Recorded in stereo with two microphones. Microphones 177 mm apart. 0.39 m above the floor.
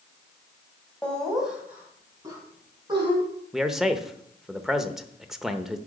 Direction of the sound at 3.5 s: Centre (ahead or behind).